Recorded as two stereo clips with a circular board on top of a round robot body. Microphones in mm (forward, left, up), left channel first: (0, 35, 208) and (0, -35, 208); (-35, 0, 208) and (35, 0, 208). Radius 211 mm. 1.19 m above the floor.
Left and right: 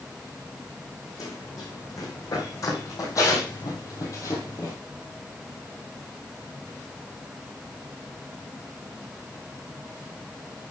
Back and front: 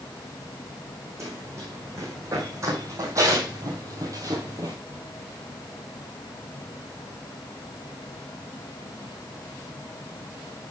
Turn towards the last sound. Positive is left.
turn(degrees=35)